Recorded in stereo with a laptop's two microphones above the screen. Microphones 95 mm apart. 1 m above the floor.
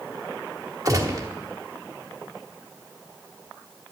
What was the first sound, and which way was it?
A gunshot, 35° right (ahead or behind).